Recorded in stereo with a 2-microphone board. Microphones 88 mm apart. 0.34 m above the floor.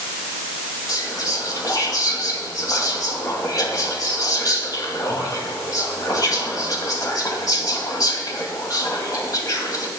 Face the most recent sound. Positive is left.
turn(degrees=45)  # may be behind; listen again after turning